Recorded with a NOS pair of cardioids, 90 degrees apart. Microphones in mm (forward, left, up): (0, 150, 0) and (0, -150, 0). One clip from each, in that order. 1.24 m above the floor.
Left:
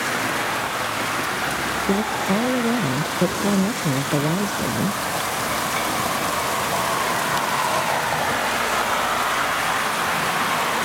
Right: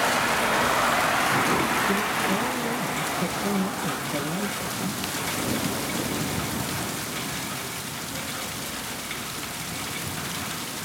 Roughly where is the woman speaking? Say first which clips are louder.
Left 2 dB; ahead left.